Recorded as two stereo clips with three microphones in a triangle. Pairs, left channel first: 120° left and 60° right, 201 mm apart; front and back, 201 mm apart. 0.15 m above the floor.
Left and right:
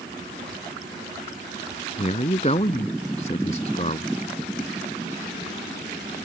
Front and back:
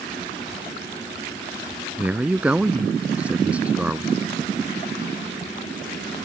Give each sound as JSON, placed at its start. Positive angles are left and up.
{"t": 2.0, "sound": "a man speaking", "azimuth_deg": 100}